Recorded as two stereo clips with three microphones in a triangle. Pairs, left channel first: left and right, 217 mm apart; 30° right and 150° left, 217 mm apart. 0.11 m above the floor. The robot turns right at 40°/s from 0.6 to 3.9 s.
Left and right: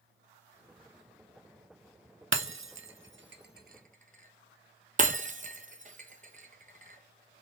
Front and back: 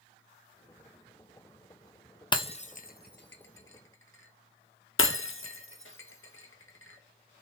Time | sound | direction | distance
2.3 | breaking glass | 100° right | 0.6 m